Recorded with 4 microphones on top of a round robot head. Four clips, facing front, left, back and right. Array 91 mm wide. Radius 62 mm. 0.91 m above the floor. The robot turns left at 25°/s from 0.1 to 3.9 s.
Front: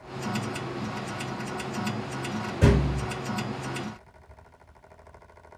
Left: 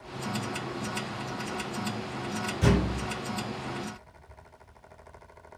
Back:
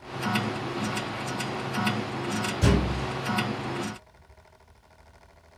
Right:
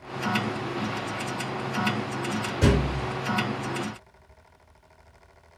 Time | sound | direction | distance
2.6 | a thud | 30° right | 5 m